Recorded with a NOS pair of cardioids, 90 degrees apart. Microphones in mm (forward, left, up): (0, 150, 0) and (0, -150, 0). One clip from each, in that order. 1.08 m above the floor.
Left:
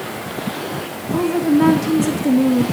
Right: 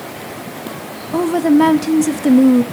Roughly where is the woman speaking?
Ahead right.